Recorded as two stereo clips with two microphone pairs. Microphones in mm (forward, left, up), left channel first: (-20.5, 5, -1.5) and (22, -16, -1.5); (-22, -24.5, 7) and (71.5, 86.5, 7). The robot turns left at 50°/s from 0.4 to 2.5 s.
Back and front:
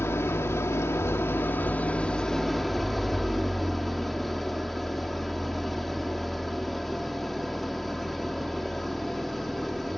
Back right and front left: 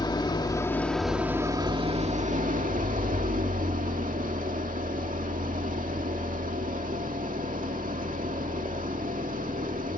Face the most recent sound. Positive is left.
turn(degrees=65)